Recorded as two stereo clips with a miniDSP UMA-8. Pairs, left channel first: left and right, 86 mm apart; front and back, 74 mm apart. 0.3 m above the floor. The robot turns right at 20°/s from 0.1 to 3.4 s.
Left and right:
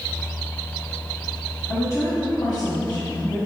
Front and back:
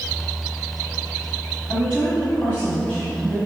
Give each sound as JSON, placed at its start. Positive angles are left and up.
{"t": 1.7, "sound": "a woman speaking", "azimuth_deg": 50, "distance_m": 2.5}